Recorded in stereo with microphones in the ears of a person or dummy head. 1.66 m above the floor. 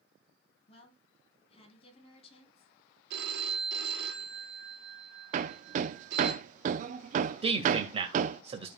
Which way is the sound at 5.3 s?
45° right (ahead or behind).